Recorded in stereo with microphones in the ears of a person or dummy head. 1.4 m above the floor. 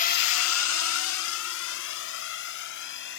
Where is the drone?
40° left (ahead or behind); by 3.2 s 60° left (ahead or behind).